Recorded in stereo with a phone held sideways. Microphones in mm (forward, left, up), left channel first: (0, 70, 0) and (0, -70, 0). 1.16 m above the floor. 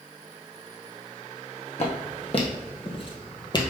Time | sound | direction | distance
1.8 | footsteps | 50° left (ahead or behind) | 2 m